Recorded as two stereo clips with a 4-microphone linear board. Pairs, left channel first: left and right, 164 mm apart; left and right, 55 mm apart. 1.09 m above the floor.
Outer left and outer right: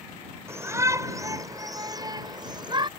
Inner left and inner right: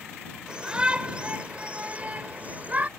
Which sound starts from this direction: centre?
A shout, at 0.5 s.